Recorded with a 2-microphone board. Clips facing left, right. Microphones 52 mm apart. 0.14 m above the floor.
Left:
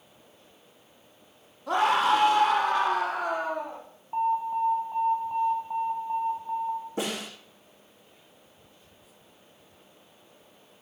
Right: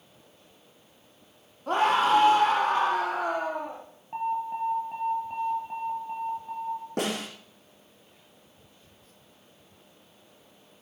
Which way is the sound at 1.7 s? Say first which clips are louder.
Even; 45° right (ahead or behind).